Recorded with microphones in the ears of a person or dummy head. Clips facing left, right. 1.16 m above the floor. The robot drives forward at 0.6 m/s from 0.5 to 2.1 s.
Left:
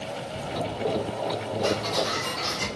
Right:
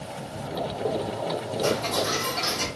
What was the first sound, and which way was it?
Ticking, 45° right (ahead or behind).